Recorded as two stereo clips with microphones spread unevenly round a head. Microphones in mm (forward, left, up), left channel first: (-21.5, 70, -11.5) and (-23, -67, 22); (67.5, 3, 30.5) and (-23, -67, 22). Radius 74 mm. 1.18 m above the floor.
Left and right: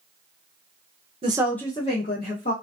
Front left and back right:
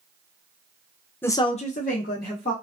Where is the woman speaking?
35° right, 0.6 m; by 2.5 s 55° left, 1.4 m.